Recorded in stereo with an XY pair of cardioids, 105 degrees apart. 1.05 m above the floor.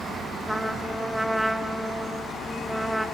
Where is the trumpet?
5° right, 1.1 m.